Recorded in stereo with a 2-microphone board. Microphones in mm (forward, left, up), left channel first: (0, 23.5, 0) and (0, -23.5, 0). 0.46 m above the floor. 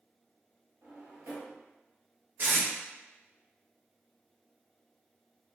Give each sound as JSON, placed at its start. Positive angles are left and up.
{"t": 0.8, "sound": "a drawer", "side_deg": -65, "distance_m": 1.1}
{"t": 2.4, "sound": "tape being pulled", "side_deg": -45, "distance_m": 1.6}